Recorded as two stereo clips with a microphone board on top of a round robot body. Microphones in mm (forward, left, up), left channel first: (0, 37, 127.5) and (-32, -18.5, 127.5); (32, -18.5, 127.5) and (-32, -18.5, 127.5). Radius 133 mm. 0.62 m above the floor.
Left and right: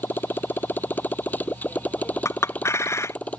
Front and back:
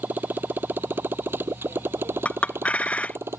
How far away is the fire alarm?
I don't hear a fire alarm.